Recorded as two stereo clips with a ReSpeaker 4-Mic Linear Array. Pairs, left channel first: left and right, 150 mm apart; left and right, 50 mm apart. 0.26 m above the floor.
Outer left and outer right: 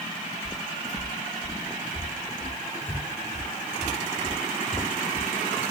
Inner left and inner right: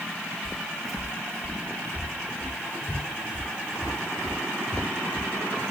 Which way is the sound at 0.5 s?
5° right (ahead or behind).